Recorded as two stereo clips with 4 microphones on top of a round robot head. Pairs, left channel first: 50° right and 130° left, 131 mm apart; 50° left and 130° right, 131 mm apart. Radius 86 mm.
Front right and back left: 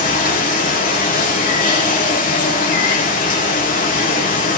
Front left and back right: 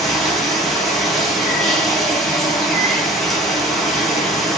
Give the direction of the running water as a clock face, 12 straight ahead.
1 o'clock.